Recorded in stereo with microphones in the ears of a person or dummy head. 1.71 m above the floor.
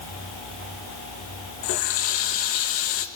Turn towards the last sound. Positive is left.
turn(degrees=50)  # may be behind; listen again after turning